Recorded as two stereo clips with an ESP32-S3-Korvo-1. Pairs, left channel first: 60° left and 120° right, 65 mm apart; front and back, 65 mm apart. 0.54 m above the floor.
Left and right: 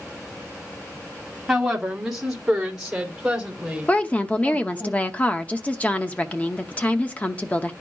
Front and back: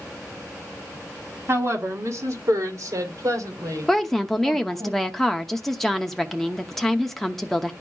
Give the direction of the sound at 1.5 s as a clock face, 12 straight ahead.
7 o'clock.